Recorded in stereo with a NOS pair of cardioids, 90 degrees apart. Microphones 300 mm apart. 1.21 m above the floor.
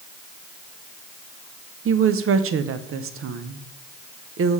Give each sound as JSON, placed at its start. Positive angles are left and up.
{"t": 1.9, "sound": "a woman speaking", "azimuth_deg": -50, "distance_m": 0.9}